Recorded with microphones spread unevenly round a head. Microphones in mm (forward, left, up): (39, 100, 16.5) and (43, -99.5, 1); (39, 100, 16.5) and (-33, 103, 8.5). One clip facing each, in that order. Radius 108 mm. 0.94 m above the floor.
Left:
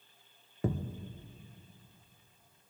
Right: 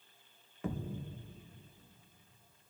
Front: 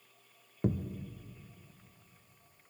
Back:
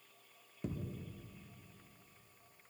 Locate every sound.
0.6 s a thud: 35° left, 0.9 m